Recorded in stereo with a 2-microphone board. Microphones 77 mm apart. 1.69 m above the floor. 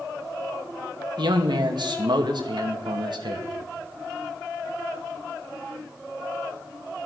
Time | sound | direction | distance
1.2 | a man speaking | 70° right (ahead or behind) | 2.0 m